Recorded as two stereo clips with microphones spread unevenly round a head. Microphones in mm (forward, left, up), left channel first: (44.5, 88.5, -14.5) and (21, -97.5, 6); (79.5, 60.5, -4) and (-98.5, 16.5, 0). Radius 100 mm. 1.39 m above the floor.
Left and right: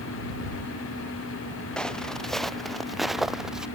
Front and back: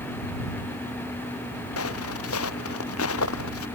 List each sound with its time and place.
1.8 s footsteps: 5° right; by 3.7 s 10° right